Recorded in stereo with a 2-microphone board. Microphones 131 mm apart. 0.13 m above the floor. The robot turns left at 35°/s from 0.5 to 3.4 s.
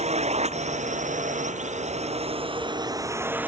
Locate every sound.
0.0 s a drone: 65° right; by 3.5 s 165° right